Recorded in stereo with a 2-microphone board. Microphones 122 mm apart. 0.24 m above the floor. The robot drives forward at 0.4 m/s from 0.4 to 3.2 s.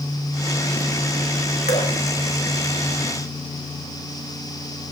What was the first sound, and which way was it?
Dripping, 65° left (ahead or behind).